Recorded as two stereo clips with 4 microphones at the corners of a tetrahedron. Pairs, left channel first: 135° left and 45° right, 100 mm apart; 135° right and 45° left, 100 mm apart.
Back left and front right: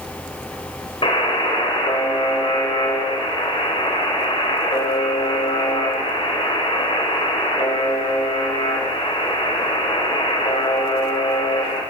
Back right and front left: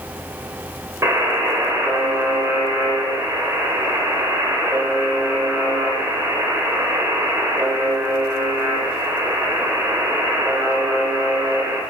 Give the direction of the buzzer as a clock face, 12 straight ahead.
8 o'clock.